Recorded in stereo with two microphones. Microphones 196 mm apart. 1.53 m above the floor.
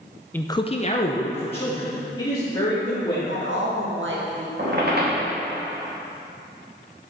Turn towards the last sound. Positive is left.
turn(degrees=-55)  # may be behind; listen again after turning